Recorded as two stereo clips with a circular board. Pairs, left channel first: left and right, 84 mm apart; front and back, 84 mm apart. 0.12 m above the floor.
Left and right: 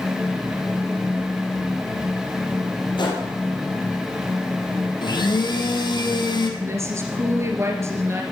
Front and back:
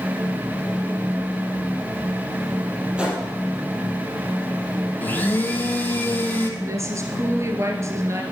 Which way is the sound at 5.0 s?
65° left.